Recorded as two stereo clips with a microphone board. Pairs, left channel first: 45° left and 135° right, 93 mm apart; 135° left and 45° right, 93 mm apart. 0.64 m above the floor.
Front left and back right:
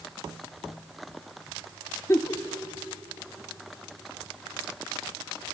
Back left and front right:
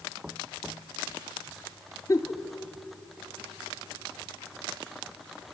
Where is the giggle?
95° left, 0.9 m.